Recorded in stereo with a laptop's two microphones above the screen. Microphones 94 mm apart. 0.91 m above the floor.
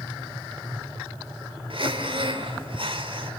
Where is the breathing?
60° right (ahead or behind), 2.5 m.